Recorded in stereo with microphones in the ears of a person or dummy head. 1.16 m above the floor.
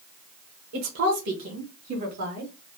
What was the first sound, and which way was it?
A woman speaking, 50° right (ahead or behind).